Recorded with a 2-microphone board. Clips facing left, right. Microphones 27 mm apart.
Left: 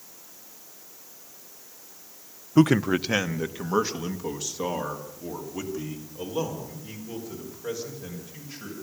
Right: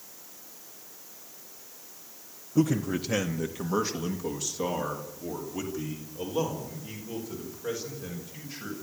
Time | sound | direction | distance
2.6 | a man speaking | 80° left | 0.6 m